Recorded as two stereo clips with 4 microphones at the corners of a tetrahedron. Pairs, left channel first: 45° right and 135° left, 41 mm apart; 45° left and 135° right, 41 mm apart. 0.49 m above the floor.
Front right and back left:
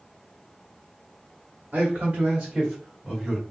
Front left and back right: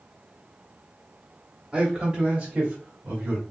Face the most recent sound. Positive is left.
turn(degrees=-140)